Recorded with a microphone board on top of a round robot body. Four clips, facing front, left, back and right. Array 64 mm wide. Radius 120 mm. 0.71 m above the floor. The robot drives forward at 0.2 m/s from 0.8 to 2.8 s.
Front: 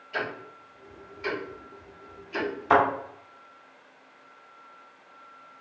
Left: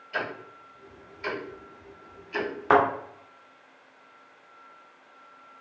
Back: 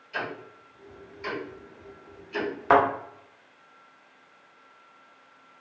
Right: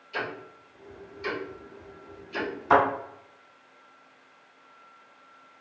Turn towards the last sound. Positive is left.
turn(degrees=135)